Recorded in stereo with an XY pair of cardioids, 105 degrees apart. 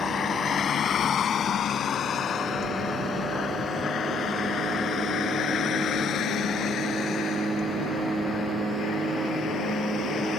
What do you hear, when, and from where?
0.0 s a vehicle: 55° left; by 10.4 s 70° left